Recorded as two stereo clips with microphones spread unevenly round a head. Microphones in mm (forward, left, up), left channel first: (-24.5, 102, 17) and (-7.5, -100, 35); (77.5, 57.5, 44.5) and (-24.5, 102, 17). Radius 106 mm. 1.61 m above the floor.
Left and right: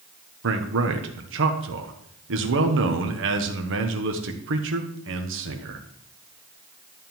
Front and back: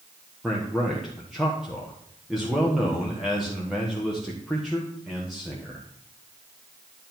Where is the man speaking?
115° right, 1.2 m.